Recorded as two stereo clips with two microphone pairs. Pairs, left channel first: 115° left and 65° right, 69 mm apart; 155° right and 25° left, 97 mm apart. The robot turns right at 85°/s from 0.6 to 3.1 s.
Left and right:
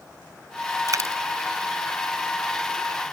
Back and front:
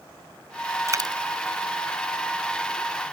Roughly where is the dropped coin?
Ahead right.